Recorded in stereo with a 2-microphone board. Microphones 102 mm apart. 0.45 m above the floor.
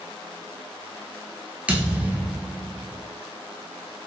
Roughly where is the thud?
Centre.